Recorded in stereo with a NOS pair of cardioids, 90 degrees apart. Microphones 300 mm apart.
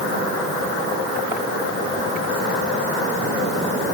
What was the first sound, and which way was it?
Only background noise.